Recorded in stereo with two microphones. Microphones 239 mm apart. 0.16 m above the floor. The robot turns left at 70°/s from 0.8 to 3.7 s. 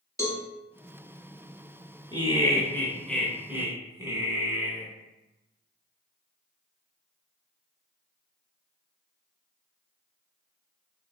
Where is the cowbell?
15° left (ahead or behind), 1.3 m.